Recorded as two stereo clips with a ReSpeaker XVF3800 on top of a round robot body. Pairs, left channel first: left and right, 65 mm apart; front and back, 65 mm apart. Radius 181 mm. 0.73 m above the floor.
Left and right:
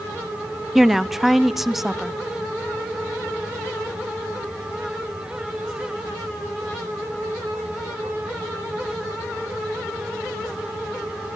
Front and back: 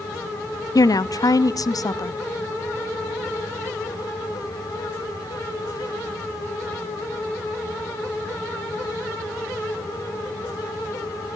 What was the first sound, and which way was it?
A woman speaking, 5° right.